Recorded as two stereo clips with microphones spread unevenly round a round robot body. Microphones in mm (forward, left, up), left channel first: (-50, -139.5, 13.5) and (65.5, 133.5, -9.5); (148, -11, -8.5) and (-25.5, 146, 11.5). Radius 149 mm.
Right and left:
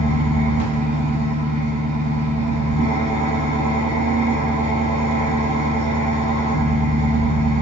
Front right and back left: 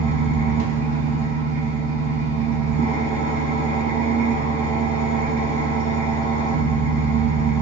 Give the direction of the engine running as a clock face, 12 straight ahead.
7 o'clock.